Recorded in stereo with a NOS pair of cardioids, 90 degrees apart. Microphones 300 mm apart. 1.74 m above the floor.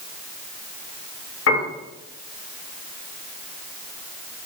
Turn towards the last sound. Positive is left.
turn(degrees=55)